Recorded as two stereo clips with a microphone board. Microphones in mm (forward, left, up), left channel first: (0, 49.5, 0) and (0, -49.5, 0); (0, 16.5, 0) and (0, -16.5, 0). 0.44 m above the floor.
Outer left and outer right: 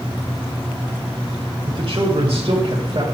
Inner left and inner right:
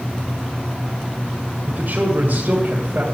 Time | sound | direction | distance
1.7 | a man speaking | 60° right (ahead or behind) | 2 m